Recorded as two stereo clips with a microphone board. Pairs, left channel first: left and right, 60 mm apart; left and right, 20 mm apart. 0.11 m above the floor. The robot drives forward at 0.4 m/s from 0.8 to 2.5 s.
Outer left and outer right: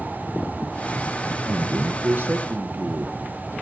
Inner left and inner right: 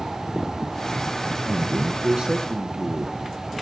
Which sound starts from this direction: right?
A man speaking, at 1.5 s.